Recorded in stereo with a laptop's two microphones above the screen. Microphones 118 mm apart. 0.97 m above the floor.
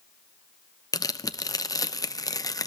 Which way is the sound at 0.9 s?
30° left (ahead or behind).